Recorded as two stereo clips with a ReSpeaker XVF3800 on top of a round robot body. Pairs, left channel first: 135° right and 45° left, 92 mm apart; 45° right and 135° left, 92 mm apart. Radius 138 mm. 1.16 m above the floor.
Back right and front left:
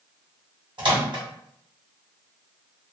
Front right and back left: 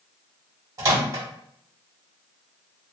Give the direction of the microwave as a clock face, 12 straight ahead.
9 o'clock.